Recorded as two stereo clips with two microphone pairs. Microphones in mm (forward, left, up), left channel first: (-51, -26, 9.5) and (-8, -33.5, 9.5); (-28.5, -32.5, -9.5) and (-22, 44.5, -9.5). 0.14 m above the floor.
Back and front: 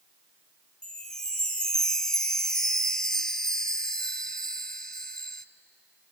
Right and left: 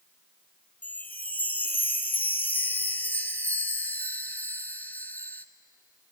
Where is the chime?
130° right, 0.7 m.